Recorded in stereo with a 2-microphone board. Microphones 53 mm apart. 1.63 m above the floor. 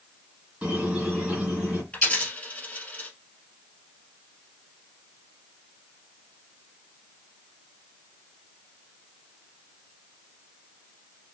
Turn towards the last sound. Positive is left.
turn(degrees=20)  # may be behind; listen again after turning